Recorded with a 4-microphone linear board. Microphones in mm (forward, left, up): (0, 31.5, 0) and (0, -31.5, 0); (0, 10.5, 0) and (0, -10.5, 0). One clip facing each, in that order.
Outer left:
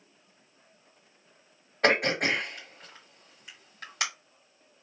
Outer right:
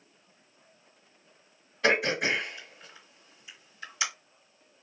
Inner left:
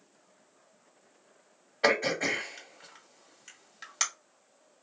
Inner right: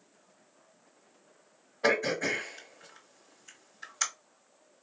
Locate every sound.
1.8 s throat clearing: 60° left (ahead or behind), 2 m